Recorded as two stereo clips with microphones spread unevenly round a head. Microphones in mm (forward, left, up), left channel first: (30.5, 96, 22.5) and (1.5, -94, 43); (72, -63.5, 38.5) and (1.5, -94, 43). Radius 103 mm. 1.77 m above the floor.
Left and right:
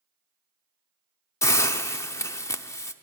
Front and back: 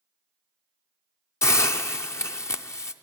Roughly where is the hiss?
Ahead.